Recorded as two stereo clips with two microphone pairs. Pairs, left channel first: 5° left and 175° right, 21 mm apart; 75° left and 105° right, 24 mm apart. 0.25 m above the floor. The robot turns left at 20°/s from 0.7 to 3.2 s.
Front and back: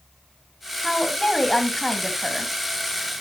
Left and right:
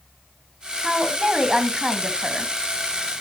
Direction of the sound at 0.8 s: 30° right.